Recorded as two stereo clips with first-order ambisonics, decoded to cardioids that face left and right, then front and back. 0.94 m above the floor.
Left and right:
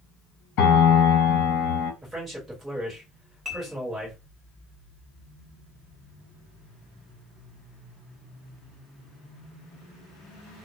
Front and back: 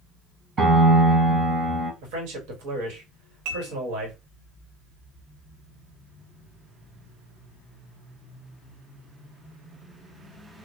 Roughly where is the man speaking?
Behind.